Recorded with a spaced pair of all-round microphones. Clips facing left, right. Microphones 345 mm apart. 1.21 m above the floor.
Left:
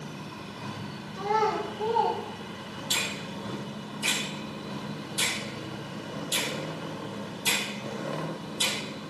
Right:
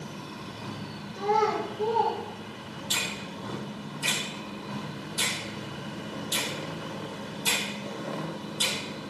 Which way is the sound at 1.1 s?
40° right (ahead or behind).